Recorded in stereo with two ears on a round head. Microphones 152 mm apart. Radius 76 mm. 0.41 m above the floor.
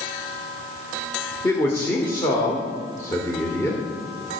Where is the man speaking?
15° left (ahead or behind), 1.3 m.